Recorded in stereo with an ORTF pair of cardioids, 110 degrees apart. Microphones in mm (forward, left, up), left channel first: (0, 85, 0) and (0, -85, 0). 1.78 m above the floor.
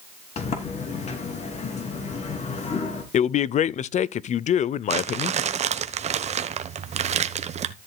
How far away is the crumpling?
About 1.1 m.